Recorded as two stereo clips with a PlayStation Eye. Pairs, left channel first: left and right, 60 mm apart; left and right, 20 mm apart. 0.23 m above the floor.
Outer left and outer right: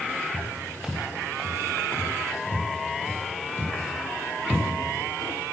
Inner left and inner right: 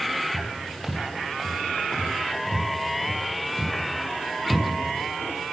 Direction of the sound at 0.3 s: 30° right (ahead or behind).